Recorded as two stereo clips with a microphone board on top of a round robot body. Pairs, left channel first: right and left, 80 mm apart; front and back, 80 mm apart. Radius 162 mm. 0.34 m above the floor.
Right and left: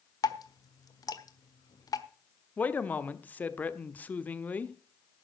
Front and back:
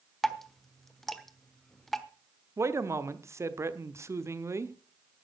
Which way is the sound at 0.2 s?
85° right.